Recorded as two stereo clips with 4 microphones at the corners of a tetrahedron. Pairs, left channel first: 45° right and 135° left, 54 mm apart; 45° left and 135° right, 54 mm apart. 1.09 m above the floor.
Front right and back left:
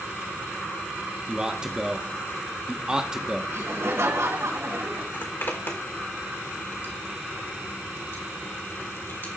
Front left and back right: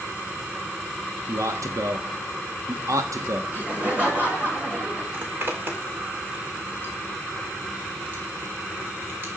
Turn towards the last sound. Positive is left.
turn(degrees=-85)